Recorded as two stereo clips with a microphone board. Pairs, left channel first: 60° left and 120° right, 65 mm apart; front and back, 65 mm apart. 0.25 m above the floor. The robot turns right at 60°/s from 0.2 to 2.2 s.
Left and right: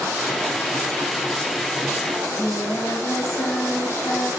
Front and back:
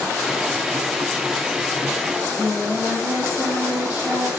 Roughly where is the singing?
Left.